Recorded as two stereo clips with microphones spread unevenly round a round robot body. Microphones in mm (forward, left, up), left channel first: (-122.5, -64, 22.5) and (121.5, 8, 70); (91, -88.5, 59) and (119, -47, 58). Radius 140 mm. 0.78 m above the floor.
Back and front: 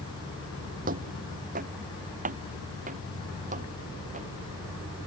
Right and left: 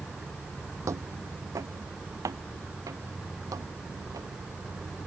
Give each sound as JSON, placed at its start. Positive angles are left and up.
{"t": 0.8, "sound": "footsteps", "azimuth_deg": 65}